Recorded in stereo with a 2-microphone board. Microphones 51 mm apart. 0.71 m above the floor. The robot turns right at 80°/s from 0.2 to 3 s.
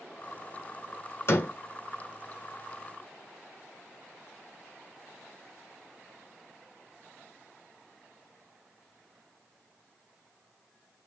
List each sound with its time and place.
1.3 s a door slam: 55° left (ahead or behind), 2 m; by 1.5 s 35° left (ahead or behind), 2 m